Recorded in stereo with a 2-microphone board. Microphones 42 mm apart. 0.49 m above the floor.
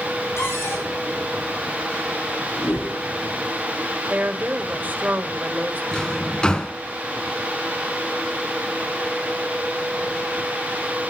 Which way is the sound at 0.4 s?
85° left.